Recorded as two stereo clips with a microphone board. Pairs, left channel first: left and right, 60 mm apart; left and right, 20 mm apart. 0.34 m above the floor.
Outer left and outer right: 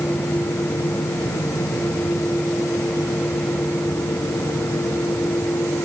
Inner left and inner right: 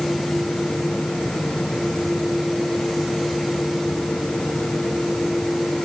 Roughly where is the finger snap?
No finger snap in this recording.